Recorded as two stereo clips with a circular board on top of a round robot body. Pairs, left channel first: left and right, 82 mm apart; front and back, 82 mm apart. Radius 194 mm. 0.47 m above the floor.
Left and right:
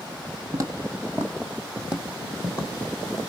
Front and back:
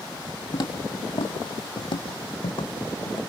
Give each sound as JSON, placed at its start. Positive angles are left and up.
{"t": 0.5, "sound": "footsteps", "azimuth_deg": -40, "distance_m": 1.0}